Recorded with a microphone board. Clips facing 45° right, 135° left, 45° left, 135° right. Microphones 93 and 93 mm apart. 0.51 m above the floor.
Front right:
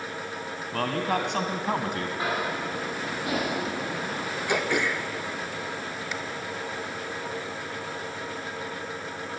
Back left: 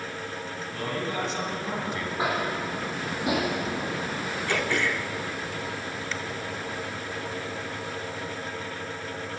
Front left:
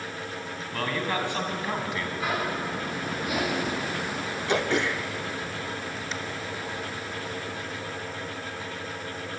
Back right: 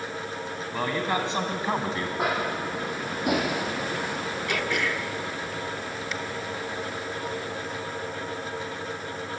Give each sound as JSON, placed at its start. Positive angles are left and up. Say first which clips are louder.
{"t": 0.7, "sound": "a man speaking", "louder": "front right 4 dB, back right 2 dB", "azimuth_deg": -60, "distance_m": 3.0}
{"t": 2.2, "sound": "tapping", "louder": "back left 3 dB, back right 2 dB", "azimuth_deg": -155, "distance_m": 9.5}
{"t": 4.5, "sound": "throat clearing", "louder": "front right 1 dB, front left 4 dB", "azimuth_deg": 15, "distance_m": 1.1}